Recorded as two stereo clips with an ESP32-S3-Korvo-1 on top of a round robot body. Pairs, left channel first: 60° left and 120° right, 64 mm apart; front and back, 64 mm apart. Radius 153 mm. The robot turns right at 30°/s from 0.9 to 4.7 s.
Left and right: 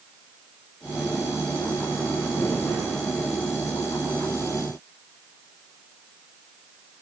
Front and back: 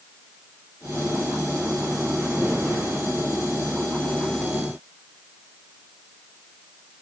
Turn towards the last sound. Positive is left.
No sound to turn to.